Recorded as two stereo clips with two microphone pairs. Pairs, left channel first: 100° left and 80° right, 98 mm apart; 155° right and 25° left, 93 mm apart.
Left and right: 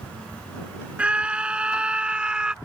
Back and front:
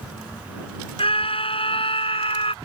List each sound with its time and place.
1.0 s a scream: 160° right